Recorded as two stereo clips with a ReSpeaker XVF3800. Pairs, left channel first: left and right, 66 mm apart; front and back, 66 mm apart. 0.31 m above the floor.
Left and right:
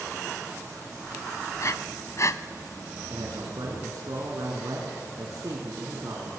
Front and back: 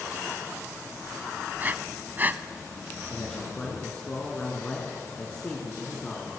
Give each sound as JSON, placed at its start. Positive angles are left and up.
{"t": 1.6, "sound": "breathing", "azimuth_deg": 120, "distance_m": 0.8}
{"t": 3.1, "sound": "a man speaking", "azimuth_deg": -70, "distance_m": 4.5}